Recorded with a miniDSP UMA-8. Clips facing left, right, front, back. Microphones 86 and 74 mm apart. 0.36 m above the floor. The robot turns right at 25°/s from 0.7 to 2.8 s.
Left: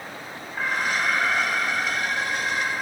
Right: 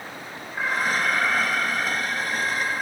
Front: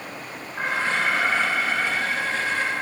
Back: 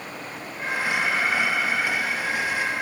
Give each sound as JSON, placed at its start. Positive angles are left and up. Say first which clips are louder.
{"t": 0.6, "sound": "an alarm", "louder": "right 1 dB, front 2 dB", "azimuth_deg": -10, "distance_m": 6.0}